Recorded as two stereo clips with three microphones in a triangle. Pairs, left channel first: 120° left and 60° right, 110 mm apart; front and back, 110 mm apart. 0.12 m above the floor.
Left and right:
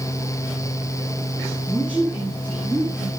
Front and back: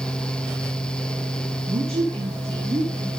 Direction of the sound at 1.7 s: 145° right.